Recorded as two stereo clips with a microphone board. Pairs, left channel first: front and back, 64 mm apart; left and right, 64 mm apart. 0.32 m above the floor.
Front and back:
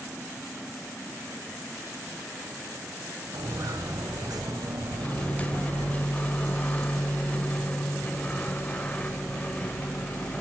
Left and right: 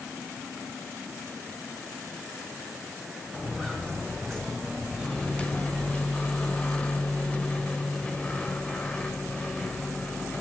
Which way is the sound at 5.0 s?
40° left.